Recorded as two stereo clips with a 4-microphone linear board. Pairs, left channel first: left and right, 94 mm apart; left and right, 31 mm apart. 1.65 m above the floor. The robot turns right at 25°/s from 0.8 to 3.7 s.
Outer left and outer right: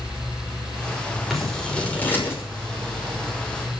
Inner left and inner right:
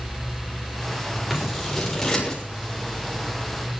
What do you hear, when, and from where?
1.3 s scissors: centre (ahead or behind), 6 m; by 2.4 s 30° left (ahead or behind), 6 m